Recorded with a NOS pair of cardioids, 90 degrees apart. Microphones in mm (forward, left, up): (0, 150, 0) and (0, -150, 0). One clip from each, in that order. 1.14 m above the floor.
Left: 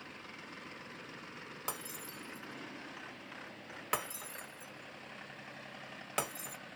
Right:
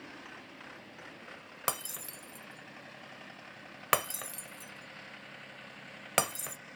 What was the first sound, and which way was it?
Breaking glass, 55° right.